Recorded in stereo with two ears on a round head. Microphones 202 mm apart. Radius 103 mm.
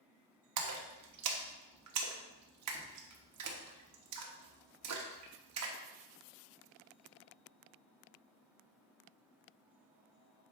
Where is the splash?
80° right, 1.0 m.